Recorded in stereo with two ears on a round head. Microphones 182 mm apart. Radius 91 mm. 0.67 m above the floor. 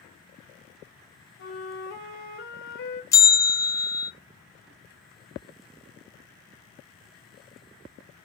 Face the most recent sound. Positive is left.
turn(degrees=15)  # may be behind; listen again after turning